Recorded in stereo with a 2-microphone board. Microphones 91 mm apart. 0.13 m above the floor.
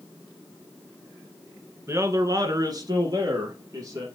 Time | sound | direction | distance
1.9 | a man speaking | 30° right (ahead or behind) | 1.6 m